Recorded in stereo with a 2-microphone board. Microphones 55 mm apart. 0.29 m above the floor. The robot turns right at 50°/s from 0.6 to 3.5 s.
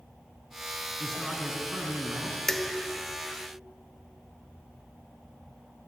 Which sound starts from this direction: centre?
Dishes clattering, at 2.5 s.